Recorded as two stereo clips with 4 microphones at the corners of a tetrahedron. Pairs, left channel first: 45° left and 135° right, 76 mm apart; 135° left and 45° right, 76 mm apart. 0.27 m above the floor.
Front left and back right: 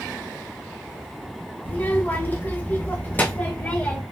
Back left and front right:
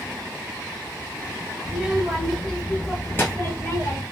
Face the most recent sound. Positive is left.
turn(degrees=110)